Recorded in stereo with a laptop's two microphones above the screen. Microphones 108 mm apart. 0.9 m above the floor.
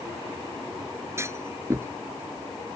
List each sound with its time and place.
1.2 s a clunk: 25° right (ahead or behind)